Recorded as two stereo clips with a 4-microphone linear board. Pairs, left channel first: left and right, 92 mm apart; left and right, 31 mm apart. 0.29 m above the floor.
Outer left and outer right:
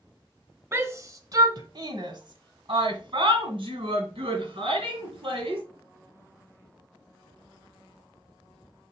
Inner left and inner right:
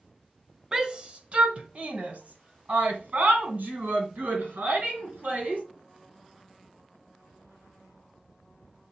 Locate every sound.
0.7 s a shout: 25° right (ahead or behind), 1.1 m; by 5.6 s 75° right (ahead or behind), 4 m